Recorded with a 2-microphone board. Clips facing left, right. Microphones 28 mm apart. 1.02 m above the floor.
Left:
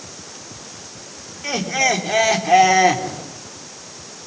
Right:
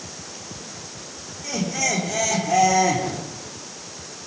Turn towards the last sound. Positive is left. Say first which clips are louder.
# left 6 dB
turn(degrees=40)  # may be behind; listen again after turning